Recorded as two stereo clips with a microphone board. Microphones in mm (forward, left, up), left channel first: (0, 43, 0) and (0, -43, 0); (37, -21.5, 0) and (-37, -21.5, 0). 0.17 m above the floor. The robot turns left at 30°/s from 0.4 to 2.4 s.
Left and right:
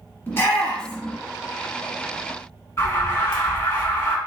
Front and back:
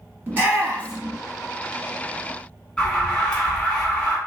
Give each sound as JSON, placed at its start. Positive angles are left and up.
{"t": 0.3, "sound": "a shout", "azimuth_deg": 135, "distance_m": 1.4}
{"t": 2.8, "sound": "an alarm", "azimuth_deg": 65, "distance_m": 0.9}